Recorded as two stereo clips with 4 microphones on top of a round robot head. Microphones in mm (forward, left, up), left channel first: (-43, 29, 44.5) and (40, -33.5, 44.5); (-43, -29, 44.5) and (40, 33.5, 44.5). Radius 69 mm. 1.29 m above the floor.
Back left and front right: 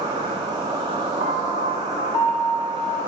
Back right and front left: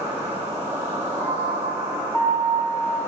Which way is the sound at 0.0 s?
20° right.